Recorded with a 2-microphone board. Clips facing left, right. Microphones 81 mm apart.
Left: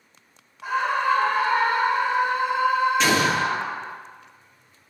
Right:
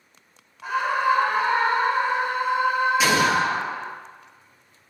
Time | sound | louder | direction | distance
0.6 | a scream | even | 5° left (ahead or behind) | 1.3 m
3.0 | an explosion | right 1 dB | 5° right (ahead or behind) | 1.2 m